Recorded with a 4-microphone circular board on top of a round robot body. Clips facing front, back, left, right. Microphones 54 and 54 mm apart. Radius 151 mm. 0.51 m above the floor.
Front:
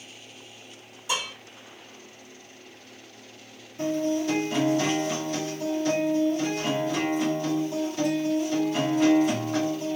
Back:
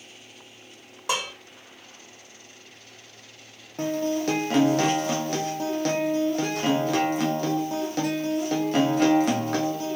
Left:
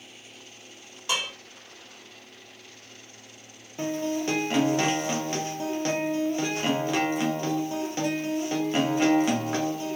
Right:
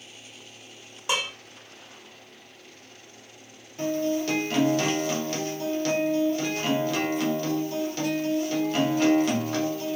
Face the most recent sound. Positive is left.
turn(degrees=160)